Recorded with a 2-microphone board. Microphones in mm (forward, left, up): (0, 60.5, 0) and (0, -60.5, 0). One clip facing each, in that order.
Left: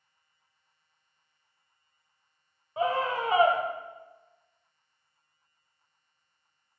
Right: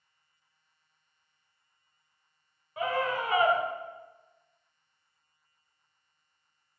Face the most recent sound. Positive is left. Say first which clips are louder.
# left 2 dB
turn(degrees=30)  # may be behind; listen again after turning